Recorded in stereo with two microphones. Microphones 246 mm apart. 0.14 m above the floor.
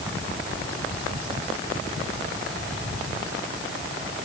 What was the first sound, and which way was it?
Only background noise.